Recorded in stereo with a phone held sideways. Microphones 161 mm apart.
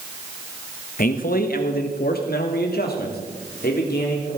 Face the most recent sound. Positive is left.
turn(degrees=75)  # may be behind; listen again after turning